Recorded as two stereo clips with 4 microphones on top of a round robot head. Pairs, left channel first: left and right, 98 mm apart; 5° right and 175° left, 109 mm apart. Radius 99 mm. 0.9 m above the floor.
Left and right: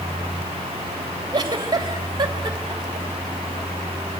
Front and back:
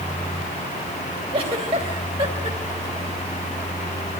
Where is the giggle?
140° right, 2.5 m.